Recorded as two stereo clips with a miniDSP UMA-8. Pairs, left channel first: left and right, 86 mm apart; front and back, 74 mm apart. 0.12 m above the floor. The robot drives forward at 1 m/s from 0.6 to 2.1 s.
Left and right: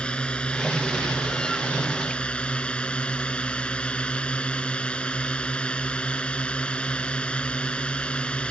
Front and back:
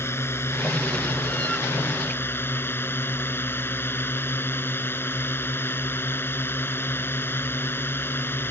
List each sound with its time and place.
0.0 s a drone: 20° left; by 8.5 s 25° left